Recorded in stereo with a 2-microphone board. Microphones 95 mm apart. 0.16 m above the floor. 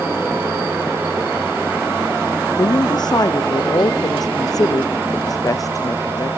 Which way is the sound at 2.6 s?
45° left (ahead or behind).